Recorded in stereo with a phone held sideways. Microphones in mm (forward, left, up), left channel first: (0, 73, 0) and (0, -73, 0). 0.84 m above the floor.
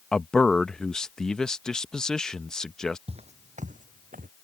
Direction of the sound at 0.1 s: 5° left (ahead or behind).